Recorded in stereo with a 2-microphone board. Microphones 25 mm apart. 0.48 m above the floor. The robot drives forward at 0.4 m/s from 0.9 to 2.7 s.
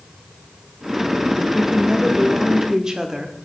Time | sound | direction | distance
1.5 | a woman speaking | 25° right (ahead or behind) | 1.3 m